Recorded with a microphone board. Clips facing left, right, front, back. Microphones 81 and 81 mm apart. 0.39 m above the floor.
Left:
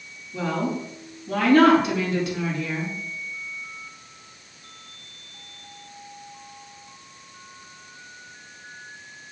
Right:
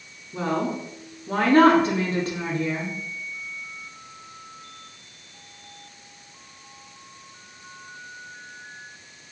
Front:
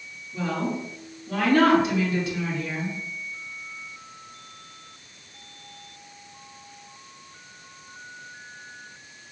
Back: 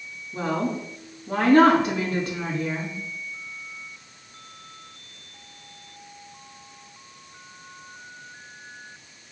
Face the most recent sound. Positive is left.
turn(degrees=-140)